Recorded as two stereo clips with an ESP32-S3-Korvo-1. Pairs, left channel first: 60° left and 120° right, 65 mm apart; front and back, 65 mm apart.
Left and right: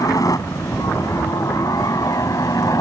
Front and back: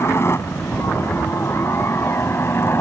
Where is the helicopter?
45° left.